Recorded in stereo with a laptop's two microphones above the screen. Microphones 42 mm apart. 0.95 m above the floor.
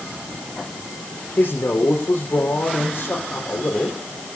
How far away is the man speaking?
About 4 m.